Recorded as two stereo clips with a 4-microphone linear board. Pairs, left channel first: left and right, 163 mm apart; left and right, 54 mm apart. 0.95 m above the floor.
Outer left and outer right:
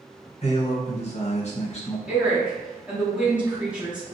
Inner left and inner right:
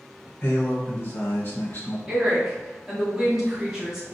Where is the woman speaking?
10° right (ahead or behind), 1.5 m.